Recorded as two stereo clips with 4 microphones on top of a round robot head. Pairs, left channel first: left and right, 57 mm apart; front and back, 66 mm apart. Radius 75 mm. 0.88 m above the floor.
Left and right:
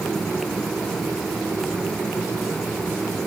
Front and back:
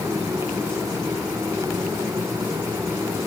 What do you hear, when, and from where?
Only background noise.